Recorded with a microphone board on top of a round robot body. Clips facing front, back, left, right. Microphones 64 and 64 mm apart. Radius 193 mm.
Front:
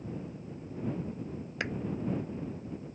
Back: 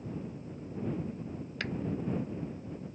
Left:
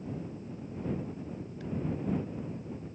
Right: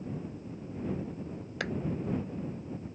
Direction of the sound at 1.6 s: 75° right.